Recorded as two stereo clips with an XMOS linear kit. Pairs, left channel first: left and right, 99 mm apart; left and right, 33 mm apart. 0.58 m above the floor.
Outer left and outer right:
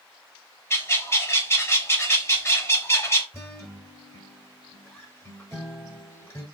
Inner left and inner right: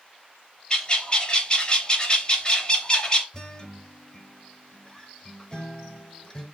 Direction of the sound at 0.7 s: 30° left (ahead or behind).